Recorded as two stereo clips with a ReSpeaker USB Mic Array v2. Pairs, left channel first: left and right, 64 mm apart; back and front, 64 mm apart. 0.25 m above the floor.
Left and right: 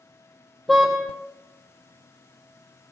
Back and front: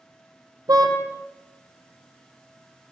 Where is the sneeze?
No sneeze in this recording.